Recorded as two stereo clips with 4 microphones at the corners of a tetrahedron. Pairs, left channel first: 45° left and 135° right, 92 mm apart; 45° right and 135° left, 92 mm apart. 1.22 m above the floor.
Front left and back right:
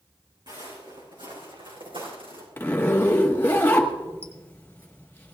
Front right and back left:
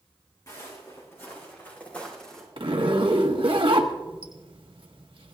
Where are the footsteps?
95° right, 5.5 m; by 2.5 s 130° right, 4 m.